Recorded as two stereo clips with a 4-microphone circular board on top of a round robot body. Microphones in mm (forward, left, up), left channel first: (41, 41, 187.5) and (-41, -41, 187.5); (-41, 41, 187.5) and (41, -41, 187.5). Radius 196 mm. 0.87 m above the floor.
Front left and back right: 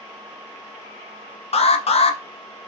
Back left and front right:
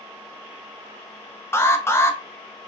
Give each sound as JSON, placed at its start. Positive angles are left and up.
{"t": 1.5, "sound": "an alarm", "azimuth_deg": 65, "distance_m": 0.6}